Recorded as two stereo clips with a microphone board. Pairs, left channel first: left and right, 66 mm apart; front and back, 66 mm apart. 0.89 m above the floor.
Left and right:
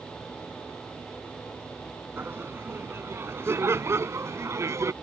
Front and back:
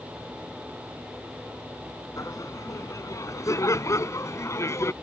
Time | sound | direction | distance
2.2 | laughter | 35° right | ?